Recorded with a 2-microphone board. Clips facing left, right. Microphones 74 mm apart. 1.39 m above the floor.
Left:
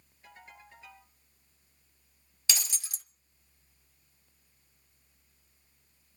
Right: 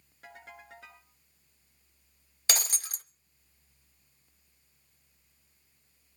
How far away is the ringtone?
About 8.5 m.